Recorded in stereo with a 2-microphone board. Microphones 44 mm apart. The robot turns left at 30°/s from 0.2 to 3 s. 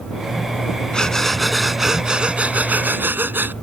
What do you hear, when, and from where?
0.9 s breathing: 20° left; by 3.5 s 40° right